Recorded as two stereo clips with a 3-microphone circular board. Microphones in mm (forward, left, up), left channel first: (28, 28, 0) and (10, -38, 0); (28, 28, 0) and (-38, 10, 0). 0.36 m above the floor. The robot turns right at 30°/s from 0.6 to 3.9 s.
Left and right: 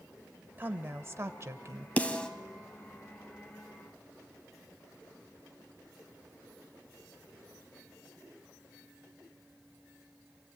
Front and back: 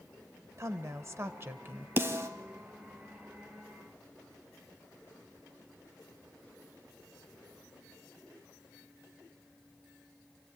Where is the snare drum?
140° left, 1.3 m; by 2.3 s 150° left, 1.3 m.